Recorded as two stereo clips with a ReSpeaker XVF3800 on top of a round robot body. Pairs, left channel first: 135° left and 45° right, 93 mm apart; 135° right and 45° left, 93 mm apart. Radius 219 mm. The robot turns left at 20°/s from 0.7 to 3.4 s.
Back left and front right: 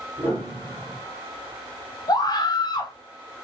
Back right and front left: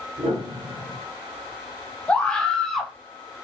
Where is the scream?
150° left, 1.2 m; by 3.0 s 135° left, 1.2 m.